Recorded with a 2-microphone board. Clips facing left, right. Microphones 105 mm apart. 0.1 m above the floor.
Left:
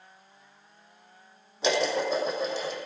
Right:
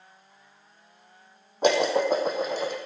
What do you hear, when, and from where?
1.6 s dishes clattering: 50° right (ahead or behind), 2.5 m